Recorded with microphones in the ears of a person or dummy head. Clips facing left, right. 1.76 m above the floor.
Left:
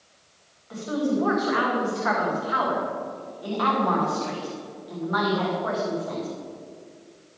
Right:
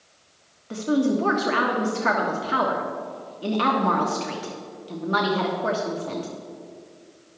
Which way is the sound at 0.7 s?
30° right (ahead or behind).